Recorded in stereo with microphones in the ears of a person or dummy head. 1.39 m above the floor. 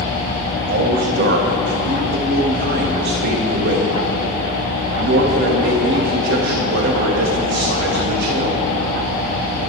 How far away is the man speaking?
About 1.7 m.